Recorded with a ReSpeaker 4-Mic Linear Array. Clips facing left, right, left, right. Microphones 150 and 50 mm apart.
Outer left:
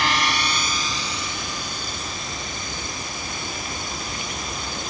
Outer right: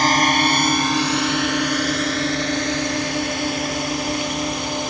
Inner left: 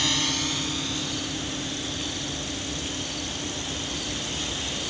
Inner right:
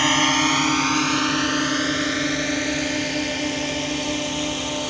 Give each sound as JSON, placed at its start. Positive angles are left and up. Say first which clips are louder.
{"t": 0.0, "sound": "a drone", "louder": "outer right 7 dB, inner right 9 dB", "side_deg": -40}